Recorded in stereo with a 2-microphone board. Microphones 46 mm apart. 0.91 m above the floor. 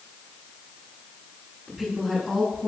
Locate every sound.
1.7 s a woman speaking: 5° right (ahead or behind), 9.5 m; by 2.7 s 10° right (ahead or behind), 9.5 m